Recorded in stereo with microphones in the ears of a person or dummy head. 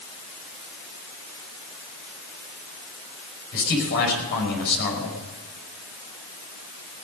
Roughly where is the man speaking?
Left.